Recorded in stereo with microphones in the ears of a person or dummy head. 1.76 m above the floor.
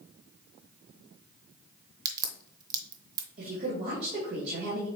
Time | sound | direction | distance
2.0 | a crack | 25° right (ahead or behind) | 0.8 m
3.4 | a woman speaking | 50° right (ahead or behind) | 2 m